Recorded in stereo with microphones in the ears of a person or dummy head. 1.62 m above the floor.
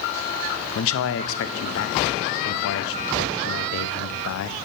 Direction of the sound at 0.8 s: 80° left.